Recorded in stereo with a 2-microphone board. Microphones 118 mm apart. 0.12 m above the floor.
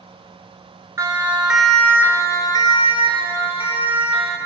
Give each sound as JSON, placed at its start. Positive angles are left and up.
{"t": 1.0, "sound": "a siren", "side_deg": -25, "distance_m": 2.0}